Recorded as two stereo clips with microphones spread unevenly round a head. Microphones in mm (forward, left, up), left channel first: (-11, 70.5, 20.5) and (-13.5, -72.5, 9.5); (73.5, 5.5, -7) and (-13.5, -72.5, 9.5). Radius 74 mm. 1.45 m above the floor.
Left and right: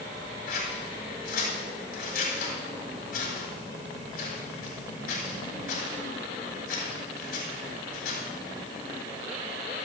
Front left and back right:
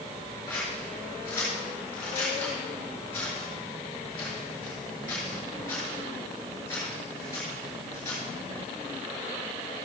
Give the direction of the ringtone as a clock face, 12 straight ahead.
I don't hear a ringtone.